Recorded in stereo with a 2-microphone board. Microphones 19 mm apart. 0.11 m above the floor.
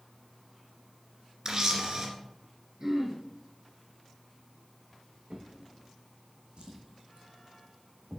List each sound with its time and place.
1.4 s a camera shutter: 40° right (ahead or behind), 2 m
2.8 s throat clearing: 25° right (ahead or behind), 2.5 m
5.3 s a drawer: 70° right (ahead or behind), 2 m